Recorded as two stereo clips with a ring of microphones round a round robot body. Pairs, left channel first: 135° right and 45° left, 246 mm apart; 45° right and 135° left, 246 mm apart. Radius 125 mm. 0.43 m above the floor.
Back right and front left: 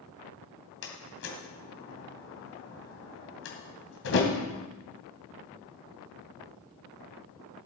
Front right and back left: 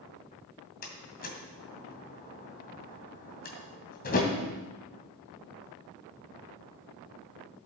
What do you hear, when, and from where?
0.8 s a door slam: 100° right, 2.5 m